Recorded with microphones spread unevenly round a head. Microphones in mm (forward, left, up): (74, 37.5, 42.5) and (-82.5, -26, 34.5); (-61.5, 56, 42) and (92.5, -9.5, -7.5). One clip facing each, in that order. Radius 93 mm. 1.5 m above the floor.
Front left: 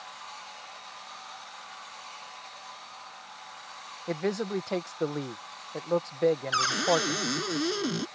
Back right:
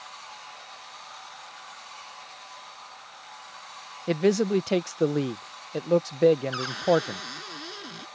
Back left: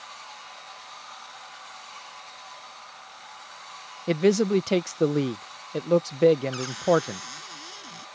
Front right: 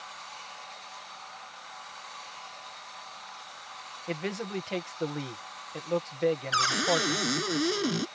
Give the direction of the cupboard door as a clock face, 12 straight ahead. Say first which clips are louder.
Back right 4 dB, back left 6 dB; 12 o'clock.